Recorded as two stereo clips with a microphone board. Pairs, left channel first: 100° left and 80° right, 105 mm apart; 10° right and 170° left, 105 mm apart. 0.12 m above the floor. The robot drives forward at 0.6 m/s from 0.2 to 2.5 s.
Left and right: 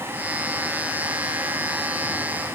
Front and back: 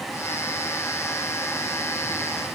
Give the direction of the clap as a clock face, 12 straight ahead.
I don't hear a clap.